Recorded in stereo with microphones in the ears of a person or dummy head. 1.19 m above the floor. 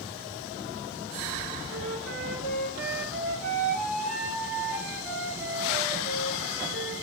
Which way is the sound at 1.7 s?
70° right (ahead or behind).